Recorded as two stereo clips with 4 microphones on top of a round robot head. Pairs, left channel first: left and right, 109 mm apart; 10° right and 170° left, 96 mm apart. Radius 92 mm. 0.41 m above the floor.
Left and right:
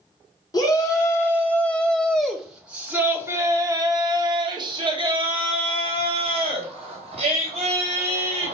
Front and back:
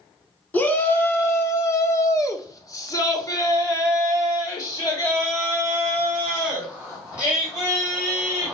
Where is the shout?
50° left, 1.7 m; by 8.5 s 75° right, 4 m.